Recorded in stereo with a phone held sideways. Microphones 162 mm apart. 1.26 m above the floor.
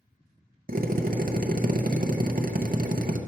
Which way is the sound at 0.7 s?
60° right (ahead or behind).